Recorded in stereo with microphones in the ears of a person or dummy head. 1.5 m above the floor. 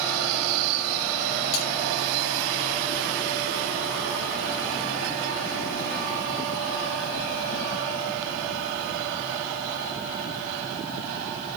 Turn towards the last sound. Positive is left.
turn(degrees=65)  # may be behind; listen again after turning